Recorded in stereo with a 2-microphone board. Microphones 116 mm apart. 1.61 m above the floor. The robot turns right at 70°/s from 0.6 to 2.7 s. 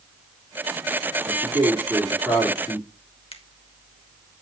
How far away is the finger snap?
About 1.3 m.